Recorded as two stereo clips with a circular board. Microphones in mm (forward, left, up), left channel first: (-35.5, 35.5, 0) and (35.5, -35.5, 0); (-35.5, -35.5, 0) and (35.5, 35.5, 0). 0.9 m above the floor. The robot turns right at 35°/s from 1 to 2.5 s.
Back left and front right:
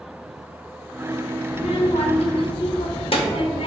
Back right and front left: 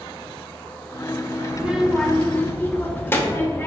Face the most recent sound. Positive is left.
turn(degrees=155)